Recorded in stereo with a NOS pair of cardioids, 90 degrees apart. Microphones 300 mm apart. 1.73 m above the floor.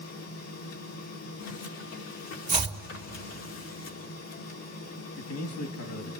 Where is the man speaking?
60° left, 3 m.